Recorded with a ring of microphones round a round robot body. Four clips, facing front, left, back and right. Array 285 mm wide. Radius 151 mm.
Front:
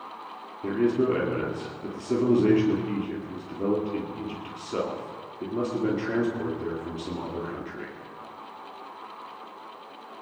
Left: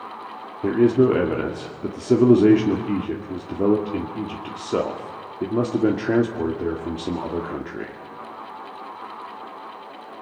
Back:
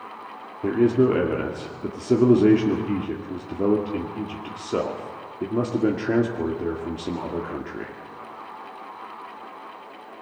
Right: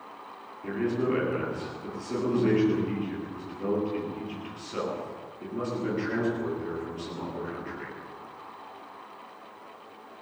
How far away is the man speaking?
About 2.5 m.